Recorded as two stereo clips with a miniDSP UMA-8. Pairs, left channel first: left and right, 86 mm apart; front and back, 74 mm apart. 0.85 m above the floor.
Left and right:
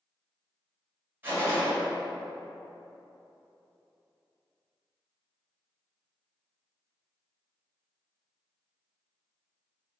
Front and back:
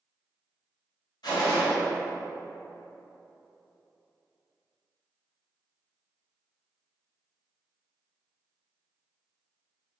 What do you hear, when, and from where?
1.2 s a gunshot: 25° right, 1.8 m